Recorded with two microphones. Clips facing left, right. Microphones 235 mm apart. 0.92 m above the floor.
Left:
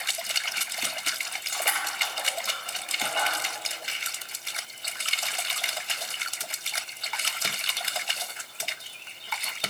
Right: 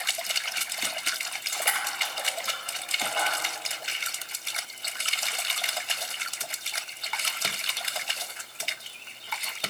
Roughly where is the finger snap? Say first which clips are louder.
Even; right.